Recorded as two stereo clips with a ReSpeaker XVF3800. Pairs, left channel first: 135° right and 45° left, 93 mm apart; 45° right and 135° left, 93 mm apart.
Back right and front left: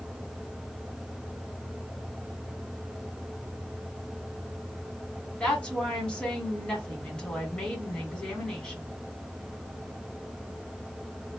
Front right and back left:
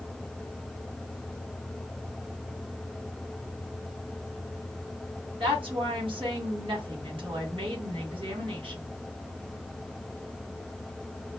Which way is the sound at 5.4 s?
145° left.